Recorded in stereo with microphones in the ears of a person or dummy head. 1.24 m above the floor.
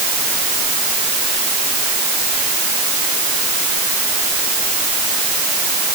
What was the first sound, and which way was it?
Only background noise.